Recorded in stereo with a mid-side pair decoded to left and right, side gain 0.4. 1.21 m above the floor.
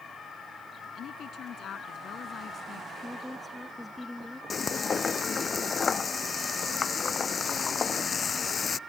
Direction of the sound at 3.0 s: 10° left.